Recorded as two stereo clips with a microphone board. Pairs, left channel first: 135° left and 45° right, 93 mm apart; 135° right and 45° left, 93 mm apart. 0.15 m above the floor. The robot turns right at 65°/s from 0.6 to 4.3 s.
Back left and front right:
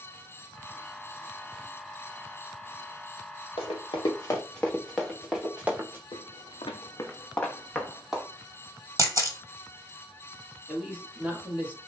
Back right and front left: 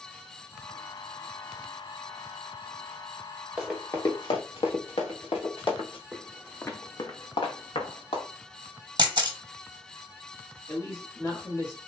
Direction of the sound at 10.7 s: 110° right.